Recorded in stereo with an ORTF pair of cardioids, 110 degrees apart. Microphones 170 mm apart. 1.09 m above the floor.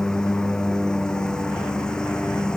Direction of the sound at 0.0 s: 5° left.